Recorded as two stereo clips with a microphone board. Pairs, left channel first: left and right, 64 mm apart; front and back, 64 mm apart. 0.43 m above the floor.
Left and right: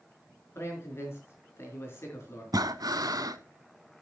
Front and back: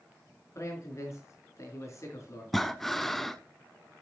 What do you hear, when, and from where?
0.6 s a man speaking: 40° left, 5 m
2.5 s breathing: 85° right, 0.6 m